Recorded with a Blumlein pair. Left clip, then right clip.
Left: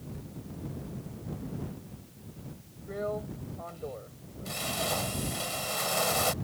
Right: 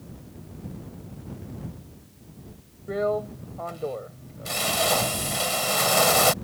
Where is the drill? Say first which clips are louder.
Right 9 dB; 65° right.